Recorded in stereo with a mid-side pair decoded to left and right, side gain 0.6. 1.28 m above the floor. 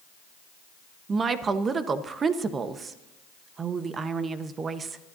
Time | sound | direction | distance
1.1 | a woman speaking | 35° right | 1.1 m